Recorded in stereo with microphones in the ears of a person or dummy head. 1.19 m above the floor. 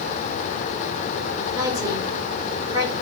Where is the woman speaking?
15° right (ahead or behind), 5 m.